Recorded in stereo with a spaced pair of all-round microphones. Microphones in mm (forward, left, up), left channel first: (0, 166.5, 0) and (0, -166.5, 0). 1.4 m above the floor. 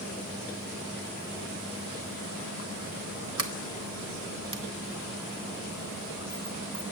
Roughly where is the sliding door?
Right.